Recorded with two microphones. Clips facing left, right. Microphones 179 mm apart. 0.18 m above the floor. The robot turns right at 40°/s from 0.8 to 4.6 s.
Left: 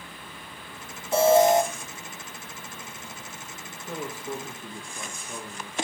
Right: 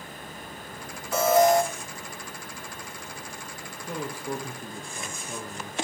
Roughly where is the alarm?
Left.